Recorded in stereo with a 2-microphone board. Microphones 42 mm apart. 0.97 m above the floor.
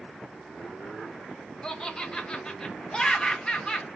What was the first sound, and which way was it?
Laughter, 20° left (ahead or behind).